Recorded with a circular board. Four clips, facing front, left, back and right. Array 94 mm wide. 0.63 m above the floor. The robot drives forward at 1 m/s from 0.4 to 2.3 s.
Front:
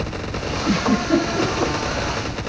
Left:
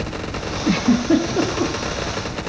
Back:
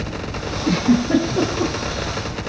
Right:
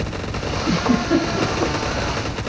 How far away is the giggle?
About 6.5 m.